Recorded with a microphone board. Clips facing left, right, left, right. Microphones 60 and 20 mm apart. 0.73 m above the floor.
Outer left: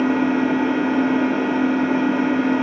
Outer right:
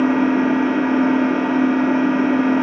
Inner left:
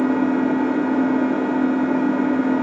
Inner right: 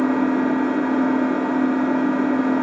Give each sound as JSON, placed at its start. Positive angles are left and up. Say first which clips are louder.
{"t": 0.0, "sound": "an engine running", "louder": "outer right 2 dB, even", "side_deg": -45, "distance_m": 1.1}